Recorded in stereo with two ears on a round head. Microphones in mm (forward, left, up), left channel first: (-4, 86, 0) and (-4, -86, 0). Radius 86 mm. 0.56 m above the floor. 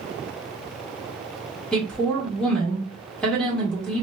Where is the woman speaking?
5° left (ahead or behind), 1.2 m.